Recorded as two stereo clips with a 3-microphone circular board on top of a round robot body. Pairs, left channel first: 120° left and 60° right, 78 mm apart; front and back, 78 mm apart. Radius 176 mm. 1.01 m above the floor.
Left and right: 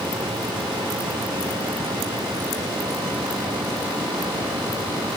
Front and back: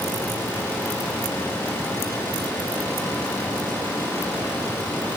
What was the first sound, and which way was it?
Only background noise.